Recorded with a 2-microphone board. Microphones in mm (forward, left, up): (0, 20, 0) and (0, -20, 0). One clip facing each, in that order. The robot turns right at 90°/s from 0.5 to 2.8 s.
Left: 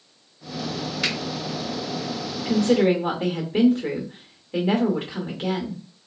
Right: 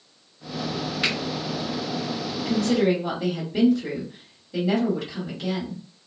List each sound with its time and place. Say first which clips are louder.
1.0 s a finger snap: right 1 dB; 15° right (ahead or behind), 1.9 m; by 1.2 s 25° right (ahead or behind), 1.9 m
2.3 s a woman speaking: left 3 dB; 40° left, 1.2 m; by 5.8 s 80° left, 1.2 m